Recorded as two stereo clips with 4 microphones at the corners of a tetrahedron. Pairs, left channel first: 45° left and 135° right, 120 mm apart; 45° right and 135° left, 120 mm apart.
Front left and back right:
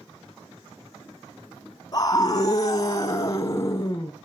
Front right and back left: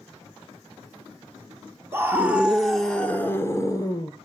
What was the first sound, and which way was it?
A scream, 80° left.